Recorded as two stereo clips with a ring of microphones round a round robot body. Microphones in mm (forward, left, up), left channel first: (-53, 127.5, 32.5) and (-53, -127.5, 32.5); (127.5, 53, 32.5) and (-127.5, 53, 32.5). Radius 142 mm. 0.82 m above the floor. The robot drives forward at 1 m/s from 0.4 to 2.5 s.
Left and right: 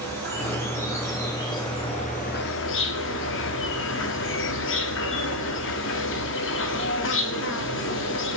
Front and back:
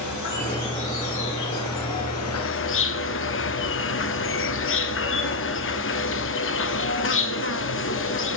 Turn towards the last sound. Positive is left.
turn(degrees=40)